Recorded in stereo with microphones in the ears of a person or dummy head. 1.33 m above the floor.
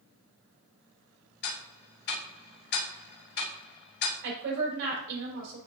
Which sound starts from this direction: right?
A woman speaking, at 4.2 s.